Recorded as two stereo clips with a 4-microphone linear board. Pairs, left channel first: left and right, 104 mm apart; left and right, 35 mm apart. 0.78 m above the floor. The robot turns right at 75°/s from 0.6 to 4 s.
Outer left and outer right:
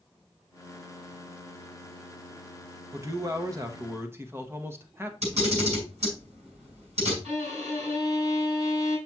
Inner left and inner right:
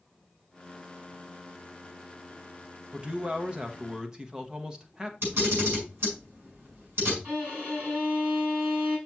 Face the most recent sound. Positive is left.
turn(degrees=-75)  # may be behind; listen again after turning